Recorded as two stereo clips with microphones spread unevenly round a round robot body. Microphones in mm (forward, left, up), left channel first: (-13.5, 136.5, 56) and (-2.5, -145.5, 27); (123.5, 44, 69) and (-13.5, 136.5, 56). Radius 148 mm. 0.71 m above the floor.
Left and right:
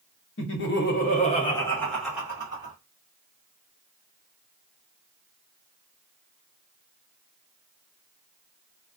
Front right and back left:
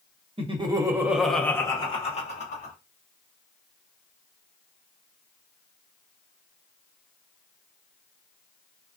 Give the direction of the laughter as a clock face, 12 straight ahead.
8 o'clock.